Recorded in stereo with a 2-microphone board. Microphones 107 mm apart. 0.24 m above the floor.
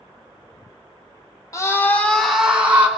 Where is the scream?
30° left (ahead or behind), 2 m; by 2.9 s 20° right (ahead or behind), 2.5 m.